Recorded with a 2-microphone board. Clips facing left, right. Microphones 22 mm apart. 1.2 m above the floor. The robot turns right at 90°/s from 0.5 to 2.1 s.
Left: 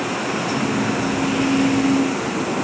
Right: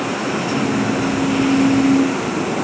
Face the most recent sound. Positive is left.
No sound to turn to.